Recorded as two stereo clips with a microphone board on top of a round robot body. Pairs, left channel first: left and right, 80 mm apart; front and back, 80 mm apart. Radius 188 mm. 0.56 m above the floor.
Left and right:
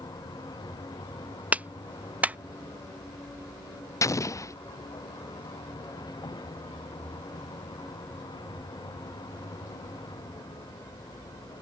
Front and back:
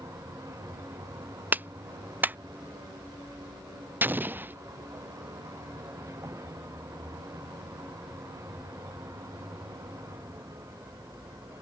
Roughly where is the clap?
Behind right.